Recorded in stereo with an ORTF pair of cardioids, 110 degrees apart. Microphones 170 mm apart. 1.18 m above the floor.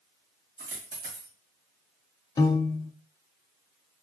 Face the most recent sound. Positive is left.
turn(degrees=20)